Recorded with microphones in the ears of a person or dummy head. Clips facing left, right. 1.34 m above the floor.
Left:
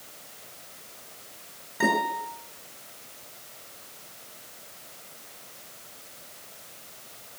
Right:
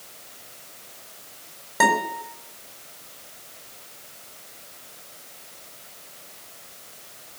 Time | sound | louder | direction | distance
1.8 | a guitar | right 3 dB | 70° right (ahead or behind) | 5 m